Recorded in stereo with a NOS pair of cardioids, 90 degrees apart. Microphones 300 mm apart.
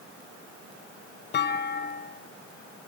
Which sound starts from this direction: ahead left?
A clunk, at 1.3 s.